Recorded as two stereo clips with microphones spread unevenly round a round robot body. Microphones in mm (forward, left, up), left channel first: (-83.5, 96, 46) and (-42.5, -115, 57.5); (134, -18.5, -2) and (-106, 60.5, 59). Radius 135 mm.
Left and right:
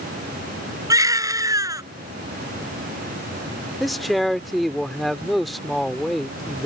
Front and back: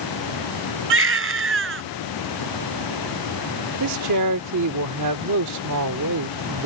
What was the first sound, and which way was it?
A baby crying, 155° right.